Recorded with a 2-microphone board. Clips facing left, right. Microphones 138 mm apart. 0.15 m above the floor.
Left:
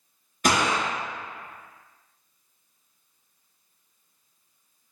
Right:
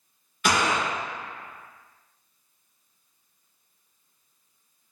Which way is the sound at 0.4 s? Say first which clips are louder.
Left 1 dB; 45° left (ahead or behind).